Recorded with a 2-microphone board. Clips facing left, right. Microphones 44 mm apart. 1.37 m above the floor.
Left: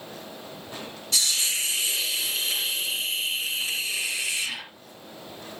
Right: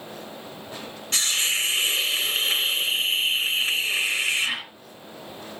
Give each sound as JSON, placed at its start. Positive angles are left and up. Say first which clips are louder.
{"t": 1.1, "sound": "a hiss", "louder": "right 3 dB", "side_deg": -40, "distance_m": 3.0}